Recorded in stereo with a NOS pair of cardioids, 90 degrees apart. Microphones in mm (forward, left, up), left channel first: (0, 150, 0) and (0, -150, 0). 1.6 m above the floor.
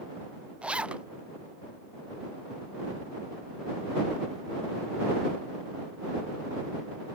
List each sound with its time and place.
0.6 s a zipper: 5° right